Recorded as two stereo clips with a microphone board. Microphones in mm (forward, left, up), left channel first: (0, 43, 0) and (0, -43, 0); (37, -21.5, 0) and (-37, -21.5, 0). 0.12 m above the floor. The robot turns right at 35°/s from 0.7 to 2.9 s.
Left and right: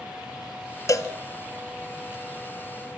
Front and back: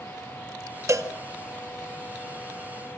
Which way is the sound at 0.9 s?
135° left.